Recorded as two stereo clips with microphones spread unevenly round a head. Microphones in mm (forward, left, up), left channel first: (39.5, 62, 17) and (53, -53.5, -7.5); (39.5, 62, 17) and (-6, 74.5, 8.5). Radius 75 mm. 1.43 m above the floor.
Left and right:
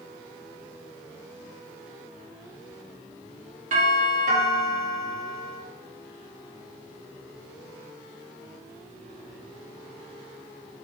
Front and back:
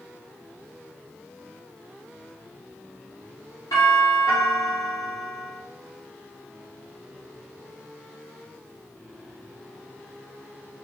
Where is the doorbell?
70° right, 3 m.